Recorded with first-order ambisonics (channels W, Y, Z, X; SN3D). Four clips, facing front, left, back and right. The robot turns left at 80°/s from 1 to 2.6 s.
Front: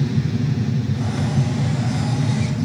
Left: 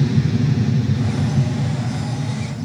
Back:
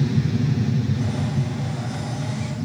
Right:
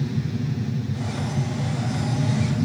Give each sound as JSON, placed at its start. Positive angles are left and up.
{"t": 0.0, "sound": "an aircraft", "azimuth_deg": 85}